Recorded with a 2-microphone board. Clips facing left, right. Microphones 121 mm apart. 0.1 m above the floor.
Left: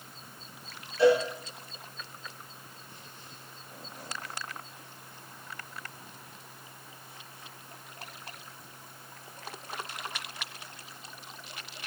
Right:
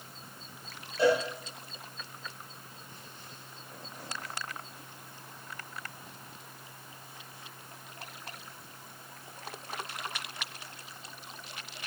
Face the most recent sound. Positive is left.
turn(degrees=-25)  # may be behind; listen again after turning